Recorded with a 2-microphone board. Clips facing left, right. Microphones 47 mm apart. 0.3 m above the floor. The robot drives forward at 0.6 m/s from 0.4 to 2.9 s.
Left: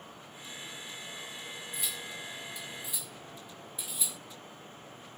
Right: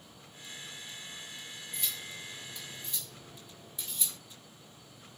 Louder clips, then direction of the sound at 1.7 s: Even; 5° left (ahead or behind).